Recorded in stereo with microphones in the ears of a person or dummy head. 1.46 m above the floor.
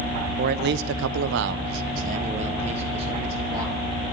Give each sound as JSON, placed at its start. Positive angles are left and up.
{"t": 0.4, "sound": "a man speaking", "side_deg": -45, "distance_m": 0.7}